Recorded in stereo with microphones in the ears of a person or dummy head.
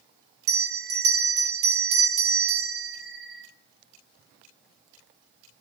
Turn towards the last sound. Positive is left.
turn(degrees=-60)  # may be behind; listen again after turning